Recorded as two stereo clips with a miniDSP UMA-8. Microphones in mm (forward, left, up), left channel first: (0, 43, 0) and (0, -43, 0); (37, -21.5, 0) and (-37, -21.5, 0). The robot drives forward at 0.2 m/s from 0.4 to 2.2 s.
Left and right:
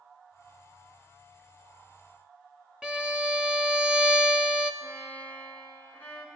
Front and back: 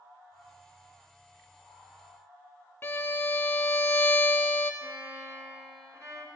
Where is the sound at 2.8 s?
25° right, 0.6 m.